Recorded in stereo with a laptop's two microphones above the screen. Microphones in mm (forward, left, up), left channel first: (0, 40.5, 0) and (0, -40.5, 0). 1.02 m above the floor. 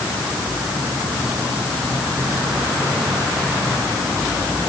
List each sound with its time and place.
Only background noise.